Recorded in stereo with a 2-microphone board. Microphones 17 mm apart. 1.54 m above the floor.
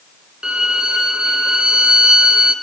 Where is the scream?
I don't hear a scream.